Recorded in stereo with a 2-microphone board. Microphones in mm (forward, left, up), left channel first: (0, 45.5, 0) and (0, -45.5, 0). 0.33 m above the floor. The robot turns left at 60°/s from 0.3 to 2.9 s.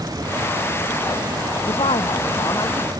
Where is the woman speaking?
100° left; by 2.9 s 25° left.